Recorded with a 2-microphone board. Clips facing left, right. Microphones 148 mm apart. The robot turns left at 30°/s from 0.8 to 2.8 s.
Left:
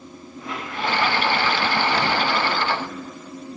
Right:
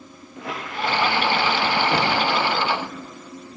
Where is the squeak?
80° right, 6.5 m; by 3.0 s 40° right (ahead or behind), 6.5 m.